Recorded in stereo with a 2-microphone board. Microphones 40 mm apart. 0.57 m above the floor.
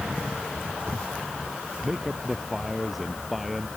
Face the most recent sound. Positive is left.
turn(degrees=0)  # may be behind; listen again after turning